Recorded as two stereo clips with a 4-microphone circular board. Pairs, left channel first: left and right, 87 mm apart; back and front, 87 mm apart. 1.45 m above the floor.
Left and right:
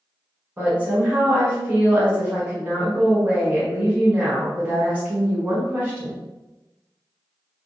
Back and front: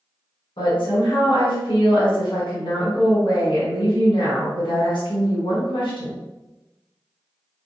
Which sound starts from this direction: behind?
A woman speaking, at 0.6 s.